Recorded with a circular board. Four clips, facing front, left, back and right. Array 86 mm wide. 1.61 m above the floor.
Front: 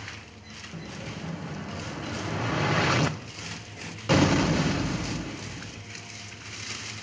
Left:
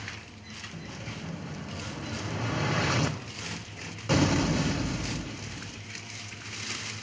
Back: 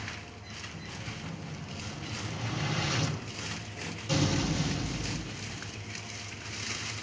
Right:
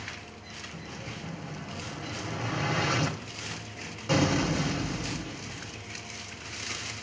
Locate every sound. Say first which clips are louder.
0.7 s an explosion: left 1 dB, front 7 dB; straight ahead, 0.7 m